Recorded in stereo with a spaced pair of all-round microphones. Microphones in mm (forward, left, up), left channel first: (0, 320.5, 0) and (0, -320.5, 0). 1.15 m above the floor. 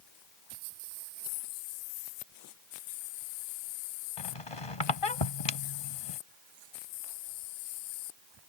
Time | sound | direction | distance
4.2 | a squeak | 55° left (ahead or behind) | ?